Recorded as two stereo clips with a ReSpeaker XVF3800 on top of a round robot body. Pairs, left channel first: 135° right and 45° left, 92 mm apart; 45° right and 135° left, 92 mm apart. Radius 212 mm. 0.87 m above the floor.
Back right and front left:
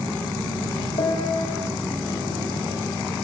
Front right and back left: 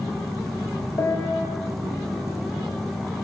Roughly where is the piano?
Right.